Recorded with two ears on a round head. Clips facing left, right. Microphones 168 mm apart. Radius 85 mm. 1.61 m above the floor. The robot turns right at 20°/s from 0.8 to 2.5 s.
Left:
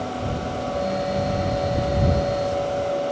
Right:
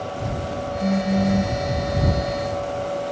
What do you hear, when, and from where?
0.8 s a phone buzzing: 85° right; by 1.6 s 70° right (ahead or behind)